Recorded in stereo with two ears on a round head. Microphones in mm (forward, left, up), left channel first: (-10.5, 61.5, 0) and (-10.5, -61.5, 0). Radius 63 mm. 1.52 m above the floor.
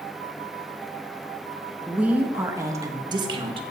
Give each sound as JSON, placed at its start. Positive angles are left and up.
{"t": 1.9, "sound": "a woman speaking", "side_deg": -10, "distance_m": 1.7}